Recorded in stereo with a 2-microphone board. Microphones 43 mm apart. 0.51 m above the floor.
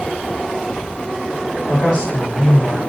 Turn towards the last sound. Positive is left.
turn(degrees=20)  # may be behind; listen again after turning